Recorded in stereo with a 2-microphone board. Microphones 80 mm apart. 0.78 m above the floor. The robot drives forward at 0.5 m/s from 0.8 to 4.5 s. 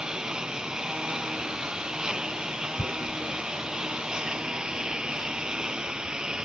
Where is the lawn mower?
10° right (ahead or behind).